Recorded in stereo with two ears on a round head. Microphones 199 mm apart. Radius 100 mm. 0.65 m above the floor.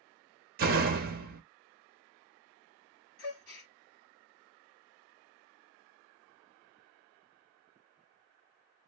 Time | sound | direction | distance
0.6 | a door slam | 40° right (ahead or behind) | 0.6 m
3.2 | a gasp | 65° left (ahead or behind) | 1.3 m